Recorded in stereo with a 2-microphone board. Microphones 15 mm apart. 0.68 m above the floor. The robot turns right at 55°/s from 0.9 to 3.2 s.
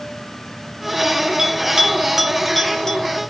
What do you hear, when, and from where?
1.4 s a bell: 65° right (ahead or behind), 3 m; by 3.0 s 25° left (ahead or behind), 3 m